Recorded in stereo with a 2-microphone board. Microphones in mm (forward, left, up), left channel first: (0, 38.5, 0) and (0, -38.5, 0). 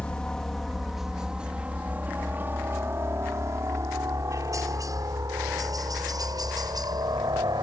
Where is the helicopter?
15° left (ahead or behind); by 7.6 s 60° right (ahead or behind).